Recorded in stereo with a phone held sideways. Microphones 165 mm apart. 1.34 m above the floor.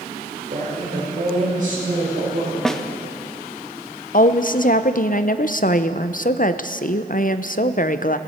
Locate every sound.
0.5 s a woman speaking: 60° right (ahead or behind), 3.5 m; by 2.5 s 65° right (ahead or behind), 6.5 m
2.6 s a snare drum: 5° left (ahead or behind), 0.5 m
4.1 s a woman speaking: 55° left (ahead or behind), 0.6 m